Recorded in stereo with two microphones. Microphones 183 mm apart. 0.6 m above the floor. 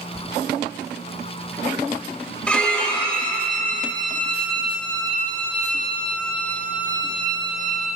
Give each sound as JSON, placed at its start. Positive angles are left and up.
{"t": 2.5, "sound": "a violin", "side_deg": 5, "distance_m": 2.0}